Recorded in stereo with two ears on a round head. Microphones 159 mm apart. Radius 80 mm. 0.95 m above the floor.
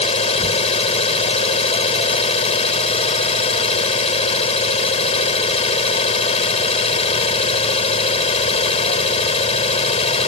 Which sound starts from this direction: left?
An engine running, at 0.0 s.